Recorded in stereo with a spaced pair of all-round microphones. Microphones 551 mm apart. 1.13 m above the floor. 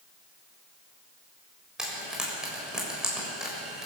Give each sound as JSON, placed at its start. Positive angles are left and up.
{"t": 1.8, "sound": "frying", "side_deg": 0, "distance_m": 6.5}